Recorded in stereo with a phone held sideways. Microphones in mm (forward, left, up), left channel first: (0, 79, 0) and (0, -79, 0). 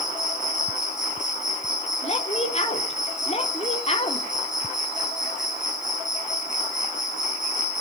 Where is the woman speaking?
40° left (ahead or behind), 3.5 m.